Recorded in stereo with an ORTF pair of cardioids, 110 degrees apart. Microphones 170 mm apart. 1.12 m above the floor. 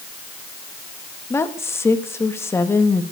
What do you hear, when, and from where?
1.3 s a woman speaking: 15° left, 1.9 m